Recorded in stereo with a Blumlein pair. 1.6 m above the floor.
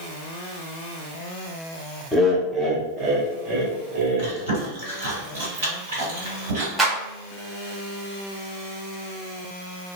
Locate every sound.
2.1 s laughter: 10° left, 0.6 m; by 4.3 s 55° right, 1.4 m
4.2 s chewing: 60° right, 1.7 m
6.8 s a clap: 10° right, 1.1 m